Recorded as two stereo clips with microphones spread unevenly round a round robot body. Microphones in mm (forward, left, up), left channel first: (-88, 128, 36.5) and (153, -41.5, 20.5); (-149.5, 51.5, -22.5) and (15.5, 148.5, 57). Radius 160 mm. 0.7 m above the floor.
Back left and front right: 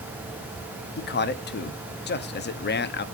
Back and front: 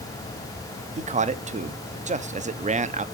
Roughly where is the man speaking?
Left.